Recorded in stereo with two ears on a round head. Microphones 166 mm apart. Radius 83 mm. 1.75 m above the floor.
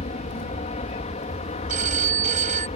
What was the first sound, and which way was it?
An aircraft, 35° left (ahead or behind).